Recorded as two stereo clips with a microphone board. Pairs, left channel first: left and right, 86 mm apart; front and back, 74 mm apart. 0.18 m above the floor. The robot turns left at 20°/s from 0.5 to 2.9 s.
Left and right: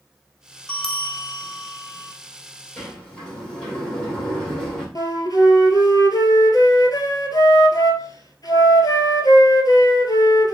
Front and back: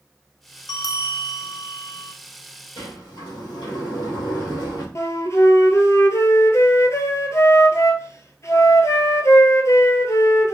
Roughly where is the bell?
Ahead.